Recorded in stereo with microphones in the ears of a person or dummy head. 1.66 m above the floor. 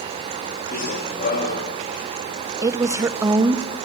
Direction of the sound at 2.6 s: 15° right (ahead or behind).